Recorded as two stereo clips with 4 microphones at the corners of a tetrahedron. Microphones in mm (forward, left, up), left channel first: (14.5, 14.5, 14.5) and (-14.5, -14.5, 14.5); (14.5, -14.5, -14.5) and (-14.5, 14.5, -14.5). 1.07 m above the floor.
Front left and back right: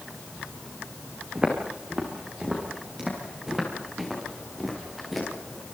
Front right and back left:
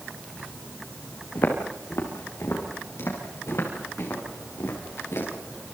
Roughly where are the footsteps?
Ahead right.